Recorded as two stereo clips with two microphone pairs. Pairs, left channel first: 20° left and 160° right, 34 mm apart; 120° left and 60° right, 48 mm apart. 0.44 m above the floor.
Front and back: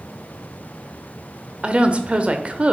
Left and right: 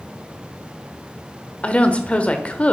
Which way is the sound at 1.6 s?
170° left.